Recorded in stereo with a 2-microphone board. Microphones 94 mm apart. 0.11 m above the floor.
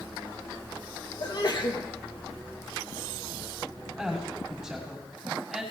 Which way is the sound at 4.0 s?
5° right (ahead or behind).